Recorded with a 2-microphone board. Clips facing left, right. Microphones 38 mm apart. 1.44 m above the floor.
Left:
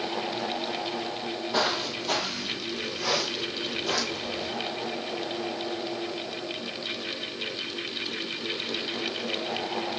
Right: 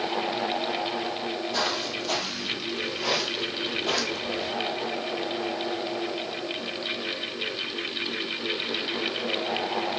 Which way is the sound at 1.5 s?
15° left (ahead or behind).